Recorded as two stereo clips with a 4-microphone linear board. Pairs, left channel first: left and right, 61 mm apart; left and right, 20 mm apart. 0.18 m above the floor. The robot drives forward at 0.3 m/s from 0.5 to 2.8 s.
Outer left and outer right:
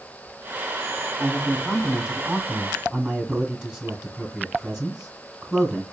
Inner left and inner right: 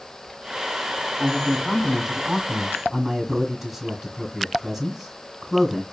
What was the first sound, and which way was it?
A man speaking, 5° right (ahead or behind).